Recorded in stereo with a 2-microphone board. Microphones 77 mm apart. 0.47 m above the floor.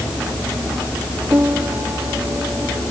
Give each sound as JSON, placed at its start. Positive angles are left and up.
{"t": 1.3, "sound": "a piano", "side_deg": -30}